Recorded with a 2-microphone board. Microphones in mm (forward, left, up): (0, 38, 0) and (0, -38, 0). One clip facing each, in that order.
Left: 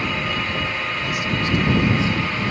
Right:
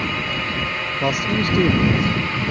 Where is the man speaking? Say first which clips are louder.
Right 6 dB; 60° right (ahead or behind); by 2.5 s 50° right (ahead or behind).